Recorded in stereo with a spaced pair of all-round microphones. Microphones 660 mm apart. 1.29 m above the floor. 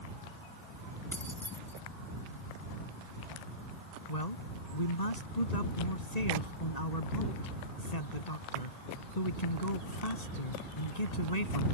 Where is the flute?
I don't hear a flute.